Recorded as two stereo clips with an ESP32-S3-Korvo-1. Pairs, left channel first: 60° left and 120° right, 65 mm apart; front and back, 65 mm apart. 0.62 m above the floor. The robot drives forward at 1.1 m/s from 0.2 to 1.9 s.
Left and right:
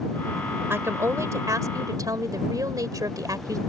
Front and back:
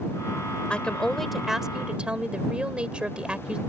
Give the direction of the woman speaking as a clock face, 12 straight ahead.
2 o'clock.